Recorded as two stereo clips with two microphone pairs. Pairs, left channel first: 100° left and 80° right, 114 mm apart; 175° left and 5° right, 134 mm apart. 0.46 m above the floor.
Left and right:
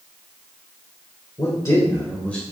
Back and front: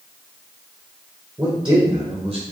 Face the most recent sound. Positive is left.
turn(degrees=20)